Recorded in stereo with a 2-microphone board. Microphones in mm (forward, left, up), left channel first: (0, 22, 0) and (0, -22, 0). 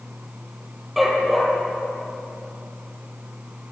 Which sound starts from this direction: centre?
A dog barking, at 1.0 s.